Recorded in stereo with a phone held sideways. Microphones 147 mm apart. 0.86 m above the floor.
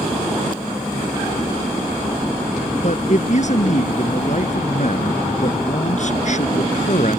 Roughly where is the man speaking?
Left.